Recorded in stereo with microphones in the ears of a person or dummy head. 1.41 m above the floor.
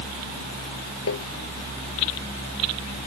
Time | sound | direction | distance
1.1 | tapping | 80° left | ?